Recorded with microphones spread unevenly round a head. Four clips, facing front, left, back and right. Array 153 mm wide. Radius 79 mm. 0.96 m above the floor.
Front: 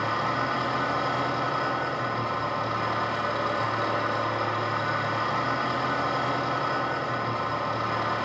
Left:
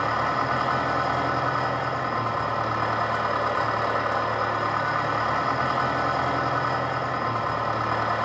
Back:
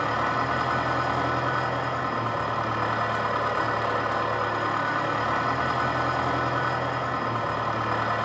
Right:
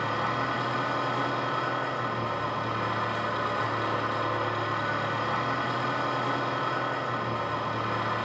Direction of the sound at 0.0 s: 110° left.